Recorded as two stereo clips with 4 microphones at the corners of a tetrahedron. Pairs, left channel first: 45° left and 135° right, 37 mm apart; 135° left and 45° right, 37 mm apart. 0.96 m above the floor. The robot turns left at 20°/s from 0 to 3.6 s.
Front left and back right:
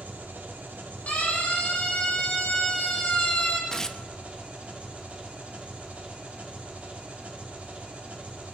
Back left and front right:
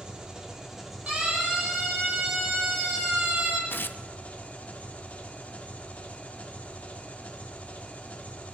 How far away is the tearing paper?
About 0.6 m.